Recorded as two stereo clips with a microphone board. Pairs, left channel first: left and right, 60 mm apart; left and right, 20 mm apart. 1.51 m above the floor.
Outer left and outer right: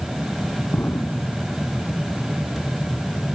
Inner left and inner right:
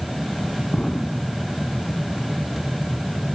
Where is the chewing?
No chewing in this recording.